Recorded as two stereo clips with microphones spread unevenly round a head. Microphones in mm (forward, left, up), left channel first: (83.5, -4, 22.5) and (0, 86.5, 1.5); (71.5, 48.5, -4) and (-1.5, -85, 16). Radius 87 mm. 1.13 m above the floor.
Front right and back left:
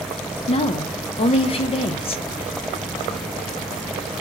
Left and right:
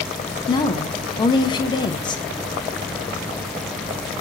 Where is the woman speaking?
Straight ahead, 0.5 m.